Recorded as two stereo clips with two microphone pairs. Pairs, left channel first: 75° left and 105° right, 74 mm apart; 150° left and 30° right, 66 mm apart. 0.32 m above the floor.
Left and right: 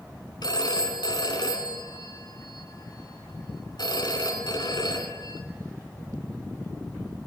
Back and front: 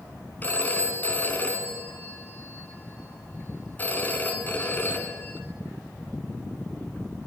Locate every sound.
0.4 s a phone ringing: 90° left, 2.5 m